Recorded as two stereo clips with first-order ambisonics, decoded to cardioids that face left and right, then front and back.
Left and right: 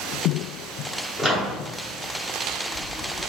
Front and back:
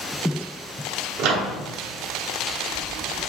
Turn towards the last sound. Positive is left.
turn(degrees=-175)